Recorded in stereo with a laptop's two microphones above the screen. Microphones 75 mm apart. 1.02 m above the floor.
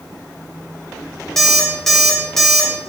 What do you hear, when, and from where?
1.4 s an alarm clock: 5° left (ahead or behind), 0.5 m